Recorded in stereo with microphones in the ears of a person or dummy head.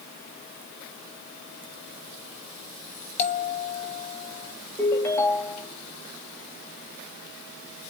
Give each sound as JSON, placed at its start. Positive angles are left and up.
{"t": 3.2, "sound": "a bell", "side_deg": 45, "distance_m": 2.0}
{"t": 4.8, "sound": "a ringtone", "side_deg": 20, "distance_m": 1.9}